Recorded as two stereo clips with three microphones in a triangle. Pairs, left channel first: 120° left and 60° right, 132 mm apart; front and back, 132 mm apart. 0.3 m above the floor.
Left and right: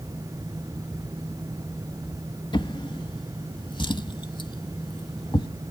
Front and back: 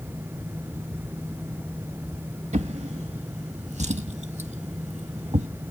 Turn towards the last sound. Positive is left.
turn(degrees=165)